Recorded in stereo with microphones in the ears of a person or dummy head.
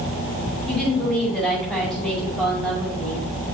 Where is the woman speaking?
5° left (ahead or behind), 5.5 m.